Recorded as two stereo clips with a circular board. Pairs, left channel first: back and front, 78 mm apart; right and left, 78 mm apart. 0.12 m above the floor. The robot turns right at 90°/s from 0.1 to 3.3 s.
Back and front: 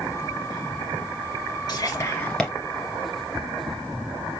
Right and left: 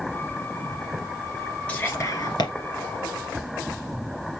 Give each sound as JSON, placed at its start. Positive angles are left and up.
{"t": 1.7, "sound": "whispering", "azimuth_deg": -160, "distance_m": 2.0}